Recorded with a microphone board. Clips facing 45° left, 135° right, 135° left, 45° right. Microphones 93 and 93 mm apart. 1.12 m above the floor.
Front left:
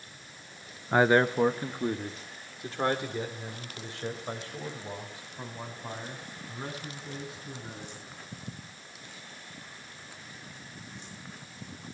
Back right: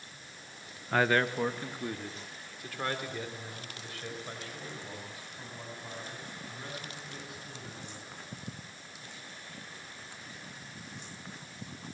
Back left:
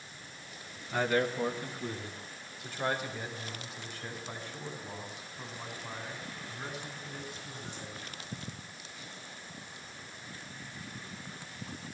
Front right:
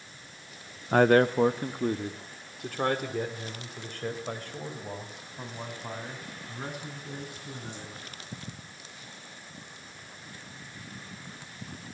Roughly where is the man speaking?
Ahead right.